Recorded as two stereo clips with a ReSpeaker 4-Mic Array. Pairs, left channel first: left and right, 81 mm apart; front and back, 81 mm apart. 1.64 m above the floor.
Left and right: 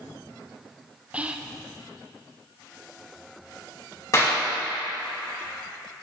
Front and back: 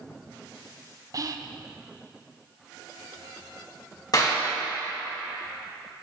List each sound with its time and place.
1.1 s whispering: 160° right, 0.5 m
4.1 s a clap: 40° left, 2.5 m